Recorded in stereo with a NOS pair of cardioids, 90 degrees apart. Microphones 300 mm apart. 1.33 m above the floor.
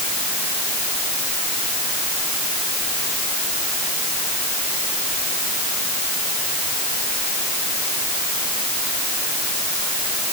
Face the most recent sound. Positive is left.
No sound to turn to.